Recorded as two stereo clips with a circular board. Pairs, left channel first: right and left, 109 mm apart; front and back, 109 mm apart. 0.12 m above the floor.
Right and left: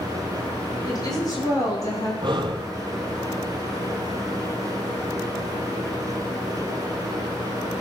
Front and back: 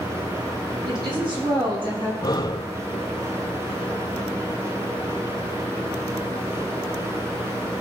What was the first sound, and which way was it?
A woman speaking, 140° right.